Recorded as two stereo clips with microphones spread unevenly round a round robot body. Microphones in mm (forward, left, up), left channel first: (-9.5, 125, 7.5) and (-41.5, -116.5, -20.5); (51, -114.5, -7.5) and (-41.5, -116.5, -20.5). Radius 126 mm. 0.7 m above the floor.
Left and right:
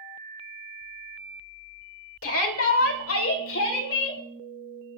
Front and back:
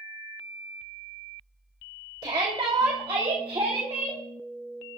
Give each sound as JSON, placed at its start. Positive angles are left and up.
{"t": 2.2, "sound": "a shout", "azimuth_deg": 115, "distance_m": 2.0}